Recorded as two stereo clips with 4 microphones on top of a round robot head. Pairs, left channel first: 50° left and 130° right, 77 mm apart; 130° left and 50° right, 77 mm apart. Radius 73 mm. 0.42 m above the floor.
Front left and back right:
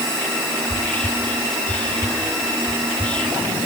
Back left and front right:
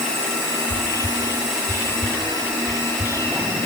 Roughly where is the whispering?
Behind left.